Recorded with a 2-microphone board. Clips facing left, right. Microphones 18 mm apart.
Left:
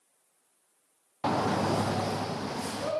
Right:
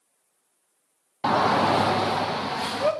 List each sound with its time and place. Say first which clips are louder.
1.2 s a shout: right 7 dB; 40° right (ahead or behind), 0.6 m; by 2.9 s 70° right (ahead or behind), 2.5 m